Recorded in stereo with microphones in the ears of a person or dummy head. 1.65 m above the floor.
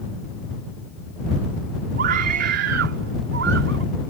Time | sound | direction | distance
2.0 | a scream | 60° right (ahead or behind) | ?